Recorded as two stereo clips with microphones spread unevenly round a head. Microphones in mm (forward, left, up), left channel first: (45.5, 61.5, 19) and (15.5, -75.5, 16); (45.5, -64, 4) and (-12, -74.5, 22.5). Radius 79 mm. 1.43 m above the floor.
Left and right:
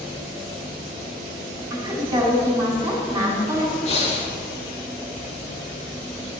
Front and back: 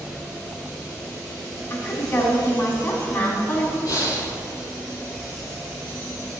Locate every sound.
1.7 s a woman speaking: 35° right, 4.5 m
3.9 s breathing: 35° left, 2 m